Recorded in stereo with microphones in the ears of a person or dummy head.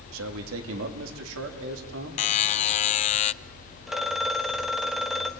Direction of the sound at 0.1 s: 85° right.